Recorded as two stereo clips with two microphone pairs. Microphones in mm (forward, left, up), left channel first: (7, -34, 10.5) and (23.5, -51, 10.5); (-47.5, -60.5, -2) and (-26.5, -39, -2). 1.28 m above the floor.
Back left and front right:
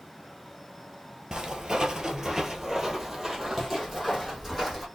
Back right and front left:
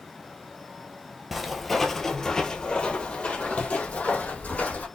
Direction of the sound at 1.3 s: 35° right.